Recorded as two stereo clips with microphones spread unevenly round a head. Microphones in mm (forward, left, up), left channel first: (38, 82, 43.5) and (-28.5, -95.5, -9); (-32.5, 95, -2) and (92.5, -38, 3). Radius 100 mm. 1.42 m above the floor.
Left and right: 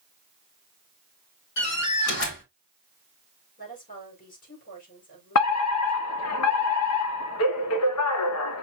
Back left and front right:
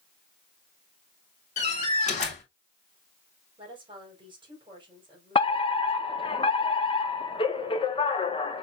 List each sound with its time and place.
1.6 s a door slam: 80° left, 4 m
3.6 s a woman speaking: 20° left, 5 m
5.3 s a fire alarm: 75° left, 1.4 m